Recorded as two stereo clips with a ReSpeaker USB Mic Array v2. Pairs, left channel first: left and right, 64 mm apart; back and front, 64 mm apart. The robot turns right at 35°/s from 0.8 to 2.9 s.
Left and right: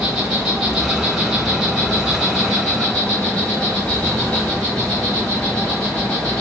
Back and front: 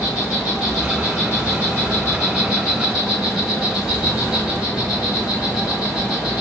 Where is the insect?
15° right, 2 m; by 6.4 s 55° left, 2 m.